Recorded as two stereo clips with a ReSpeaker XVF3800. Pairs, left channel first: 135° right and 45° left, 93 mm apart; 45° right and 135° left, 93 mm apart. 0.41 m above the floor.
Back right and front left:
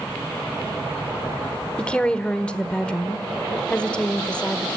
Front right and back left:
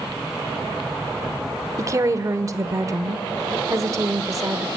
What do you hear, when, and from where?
1.8 s a woman speaking: 155° left, 0.9 m